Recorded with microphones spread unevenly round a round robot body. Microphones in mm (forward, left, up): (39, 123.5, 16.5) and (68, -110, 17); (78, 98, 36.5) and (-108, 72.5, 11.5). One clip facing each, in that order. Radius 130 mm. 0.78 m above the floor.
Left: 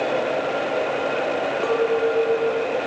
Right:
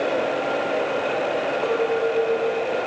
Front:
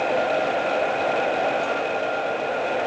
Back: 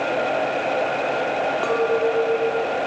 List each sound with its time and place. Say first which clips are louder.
1.6 s a clink: left 2 dB, back 6 dB; 170° left